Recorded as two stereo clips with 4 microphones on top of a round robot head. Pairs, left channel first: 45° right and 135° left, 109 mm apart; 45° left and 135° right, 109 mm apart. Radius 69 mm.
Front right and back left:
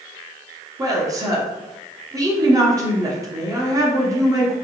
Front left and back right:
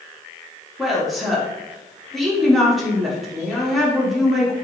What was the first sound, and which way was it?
A woman speaking, 135° left.